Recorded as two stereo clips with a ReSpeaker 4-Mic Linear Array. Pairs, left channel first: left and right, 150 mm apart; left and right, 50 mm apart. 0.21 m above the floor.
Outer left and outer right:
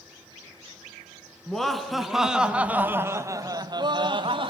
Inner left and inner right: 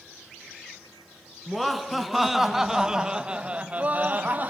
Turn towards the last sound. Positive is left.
turn(degrees=-35)  # may be behind; listen again after turning